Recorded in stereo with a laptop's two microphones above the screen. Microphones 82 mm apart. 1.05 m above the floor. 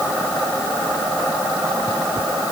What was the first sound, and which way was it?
Only background noise.